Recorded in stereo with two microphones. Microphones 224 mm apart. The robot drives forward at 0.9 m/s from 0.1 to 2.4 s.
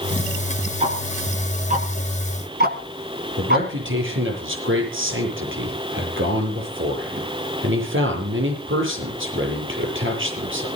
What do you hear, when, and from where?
0.8 s ticking: 30° right (ahead or behind), 3 m; by 3.7 s 45° right (ahead or behind), 2 m
3.4 s a man speaking: 60° right (ahead or behind), 8 m